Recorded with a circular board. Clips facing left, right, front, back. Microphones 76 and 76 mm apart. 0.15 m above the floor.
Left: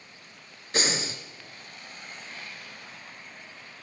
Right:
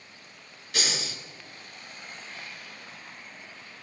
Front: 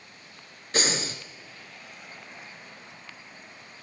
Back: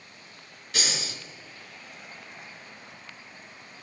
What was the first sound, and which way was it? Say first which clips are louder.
Breathing: left 4 dB, front 5 dB; 45° left.